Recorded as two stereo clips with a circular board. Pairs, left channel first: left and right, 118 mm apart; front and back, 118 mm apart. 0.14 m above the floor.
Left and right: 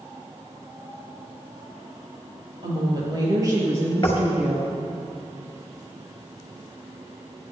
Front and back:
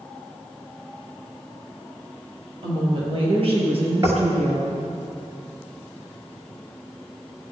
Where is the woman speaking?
135° right, 4 m; by 4.8 s 175° right, 3.5 m.